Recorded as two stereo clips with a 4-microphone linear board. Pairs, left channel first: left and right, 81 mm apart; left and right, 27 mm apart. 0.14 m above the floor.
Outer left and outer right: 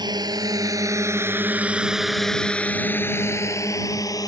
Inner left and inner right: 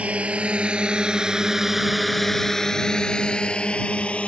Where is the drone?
55° right (ahead or behind); by 4.3 s 45° left (ahead or behind).